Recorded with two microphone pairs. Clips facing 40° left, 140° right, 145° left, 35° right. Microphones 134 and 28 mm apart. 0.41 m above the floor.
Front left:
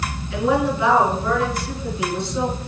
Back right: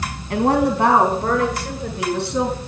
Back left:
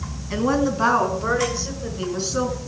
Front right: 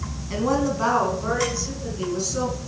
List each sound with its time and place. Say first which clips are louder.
0.3 s a woman speaking: back right 3 dB, back left 2 dB; 135° right, 4.5 m; by 2.6 s 160° right, 6.5 m